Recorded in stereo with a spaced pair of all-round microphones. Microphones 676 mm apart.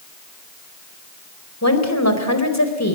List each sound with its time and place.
1.6 s a woman speaking: 20° left (ahead or behind), 4 m